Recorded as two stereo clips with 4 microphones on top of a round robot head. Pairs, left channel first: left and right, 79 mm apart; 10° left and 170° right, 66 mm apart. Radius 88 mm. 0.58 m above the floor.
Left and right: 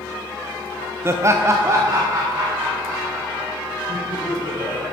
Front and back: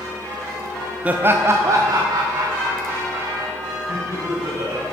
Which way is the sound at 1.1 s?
115° right.